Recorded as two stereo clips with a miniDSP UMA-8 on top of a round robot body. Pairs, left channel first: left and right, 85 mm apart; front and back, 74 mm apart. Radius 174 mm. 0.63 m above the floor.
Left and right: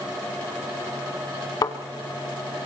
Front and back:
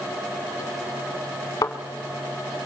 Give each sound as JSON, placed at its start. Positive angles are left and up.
{"t": 1.6, "sound": "a thud", "azimuth_deg": 50, "distance_m": 1.1}